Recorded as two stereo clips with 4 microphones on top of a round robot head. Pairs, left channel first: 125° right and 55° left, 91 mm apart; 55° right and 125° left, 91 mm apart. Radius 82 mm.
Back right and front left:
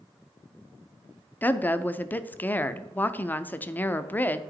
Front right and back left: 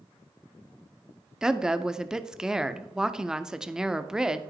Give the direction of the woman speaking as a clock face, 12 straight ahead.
5 o'clock.